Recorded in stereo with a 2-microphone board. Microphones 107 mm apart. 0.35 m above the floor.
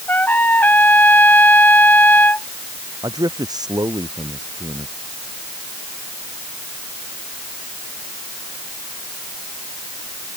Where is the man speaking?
40° right (ahead or behind).